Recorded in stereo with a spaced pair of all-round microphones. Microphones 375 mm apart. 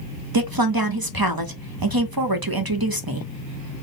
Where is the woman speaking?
65° right (ahead or behind), 0.7 m.